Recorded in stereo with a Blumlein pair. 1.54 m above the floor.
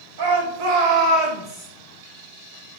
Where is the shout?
60° right, 1.3 m; by 1.7 s 5° left, 0.8 m.